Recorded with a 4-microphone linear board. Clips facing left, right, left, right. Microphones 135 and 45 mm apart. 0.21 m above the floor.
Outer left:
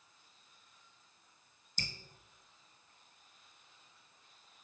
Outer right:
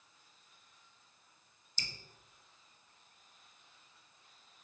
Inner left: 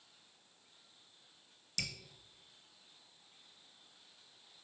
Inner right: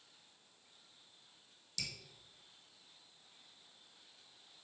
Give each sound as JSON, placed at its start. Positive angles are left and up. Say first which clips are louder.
{"t": 1.8, "sound": "dripping", "louder": "outer left 4 dB, inner left 4 dB", "side_deg": 50, "distance_m": 0.5}